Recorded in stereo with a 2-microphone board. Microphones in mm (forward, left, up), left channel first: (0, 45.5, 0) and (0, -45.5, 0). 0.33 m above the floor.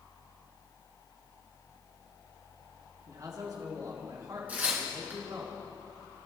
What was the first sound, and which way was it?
A man speaking, 45° right (ahead or behind).